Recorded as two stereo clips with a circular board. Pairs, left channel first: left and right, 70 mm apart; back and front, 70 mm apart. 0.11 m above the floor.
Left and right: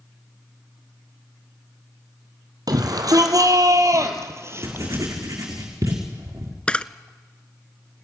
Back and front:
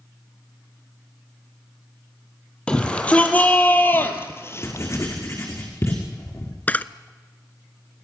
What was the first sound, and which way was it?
A shout, 105° right.